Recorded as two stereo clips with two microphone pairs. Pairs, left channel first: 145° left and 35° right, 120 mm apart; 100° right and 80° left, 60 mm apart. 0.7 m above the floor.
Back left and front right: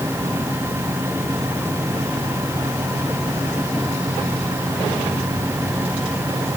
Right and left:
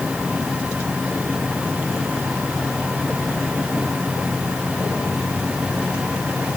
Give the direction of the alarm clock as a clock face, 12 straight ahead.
I don't hear an alarm clock.